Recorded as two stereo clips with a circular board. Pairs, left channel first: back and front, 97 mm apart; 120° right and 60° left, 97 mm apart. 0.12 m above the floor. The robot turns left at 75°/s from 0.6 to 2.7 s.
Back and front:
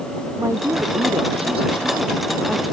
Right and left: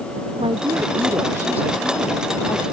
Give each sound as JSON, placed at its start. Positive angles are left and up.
{"t": 0.4, "sound": "a woman speaking", "azimuth_deg": 60}